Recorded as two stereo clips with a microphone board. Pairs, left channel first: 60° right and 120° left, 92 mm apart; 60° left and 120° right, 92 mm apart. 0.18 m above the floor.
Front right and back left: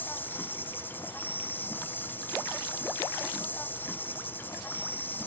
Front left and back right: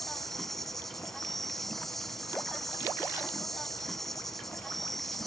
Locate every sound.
0.0 s an insect: 25° right, 1.2 m